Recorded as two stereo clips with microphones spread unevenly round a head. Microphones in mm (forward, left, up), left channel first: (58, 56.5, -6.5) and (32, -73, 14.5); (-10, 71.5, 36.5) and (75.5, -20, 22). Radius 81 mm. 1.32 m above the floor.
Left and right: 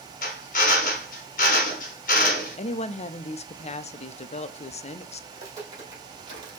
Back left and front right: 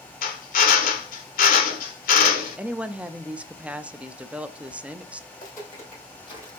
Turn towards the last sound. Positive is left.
turn(degrees=-115)